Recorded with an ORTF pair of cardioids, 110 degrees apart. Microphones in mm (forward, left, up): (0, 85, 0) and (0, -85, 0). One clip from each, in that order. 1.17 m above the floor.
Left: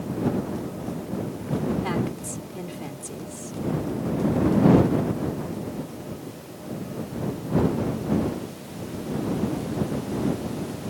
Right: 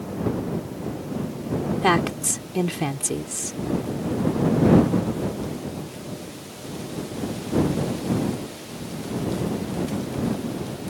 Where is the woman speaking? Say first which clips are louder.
Right 8 dB; 70° right.